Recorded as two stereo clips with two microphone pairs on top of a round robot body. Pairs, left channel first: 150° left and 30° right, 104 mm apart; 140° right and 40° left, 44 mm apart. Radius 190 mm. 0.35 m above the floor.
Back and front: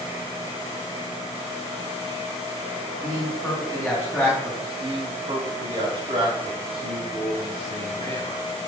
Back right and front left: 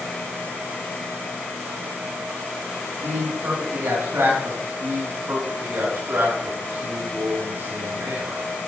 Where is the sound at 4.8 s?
10° left, 5.5 m.